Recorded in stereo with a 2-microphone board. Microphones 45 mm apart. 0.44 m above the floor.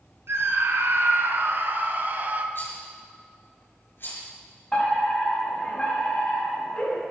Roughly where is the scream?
Right.